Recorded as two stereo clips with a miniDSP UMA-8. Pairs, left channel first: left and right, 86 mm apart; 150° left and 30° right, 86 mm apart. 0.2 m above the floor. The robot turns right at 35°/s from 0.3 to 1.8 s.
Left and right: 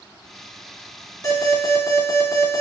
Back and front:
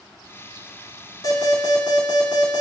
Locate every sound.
1.2 s an alarm: 120° left, 1.7 m; by 2.6 s 140° left, 1.7 m